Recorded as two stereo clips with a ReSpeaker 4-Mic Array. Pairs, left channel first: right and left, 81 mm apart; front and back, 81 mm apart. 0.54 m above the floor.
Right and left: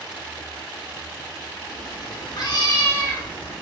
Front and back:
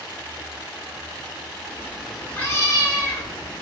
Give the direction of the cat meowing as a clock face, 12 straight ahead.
4 o'clock.